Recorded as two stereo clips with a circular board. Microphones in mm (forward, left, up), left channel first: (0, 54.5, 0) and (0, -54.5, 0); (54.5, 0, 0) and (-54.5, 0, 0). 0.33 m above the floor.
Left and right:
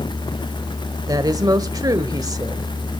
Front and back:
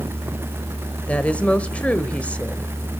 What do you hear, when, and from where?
1.1 s a woman speaking: 70° right, 1.0 m